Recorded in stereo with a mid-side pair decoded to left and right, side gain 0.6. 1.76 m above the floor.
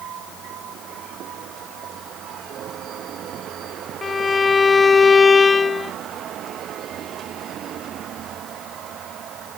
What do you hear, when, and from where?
4.0 s a violin: 20° left